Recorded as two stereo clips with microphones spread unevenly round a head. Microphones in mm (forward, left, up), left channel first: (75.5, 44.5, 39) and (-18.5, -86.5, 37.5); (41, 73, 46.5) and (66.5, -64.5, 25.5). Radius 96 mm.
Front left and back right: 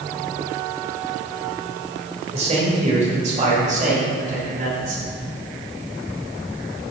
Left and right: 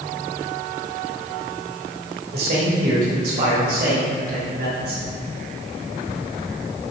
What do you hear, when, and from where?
2.3 s a man speaking: 80° right, 3 m; by 5.0 s 90° right, 6 m